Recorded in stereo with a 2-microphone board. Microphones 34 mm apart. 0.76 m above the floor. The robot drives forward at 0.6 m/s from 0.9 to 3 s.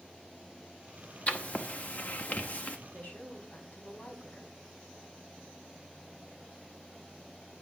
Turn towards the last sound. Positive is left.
turn(degrees=55)  # may be behind; listen again after turning